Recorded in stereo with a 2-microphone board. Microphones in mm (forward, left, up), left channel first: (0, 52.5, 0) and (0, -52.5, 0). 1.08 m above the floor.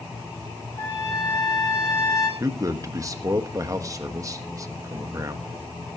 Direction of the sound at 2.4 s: 30° right (ahead or behind).